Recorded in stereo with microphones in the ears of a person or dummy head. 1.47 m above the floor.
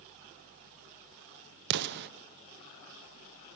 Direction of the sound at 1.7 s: 55° right (ahead or behind).